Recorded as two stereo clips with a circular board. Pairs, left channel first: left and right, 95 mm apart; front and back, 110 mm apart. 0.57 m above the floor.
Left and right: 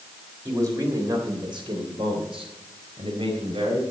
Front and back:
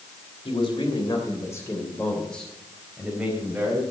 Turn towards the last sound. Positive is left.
turn(degrees=-110)